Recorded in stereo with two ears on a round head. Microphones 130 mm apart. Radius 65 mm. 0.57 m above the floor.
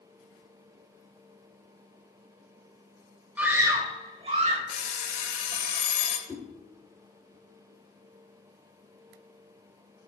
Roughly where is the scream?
Centre.